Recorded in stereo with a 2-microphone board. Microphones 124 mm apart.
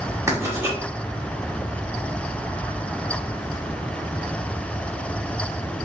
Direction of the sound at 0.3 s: 25° right (ahead or behind).